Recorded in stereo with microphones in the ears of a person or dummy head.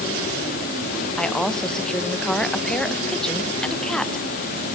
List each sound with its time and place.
1.2 s a woman speaking: 5° left (ahead or behind), 0.6 m